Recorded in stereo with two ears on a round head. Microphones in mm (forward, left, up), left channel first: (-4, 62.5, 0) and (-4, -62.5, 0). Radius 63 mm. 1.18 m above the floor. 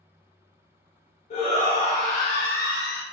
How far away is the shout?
About 1.7 m.